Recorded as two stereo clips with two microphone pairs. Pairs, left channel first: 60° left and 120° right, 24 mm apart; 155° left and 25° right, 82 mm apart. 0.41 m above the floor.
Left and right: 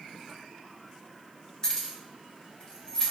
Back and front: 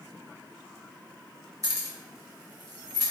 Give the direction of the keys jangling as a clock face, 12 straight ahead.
12 o'clock.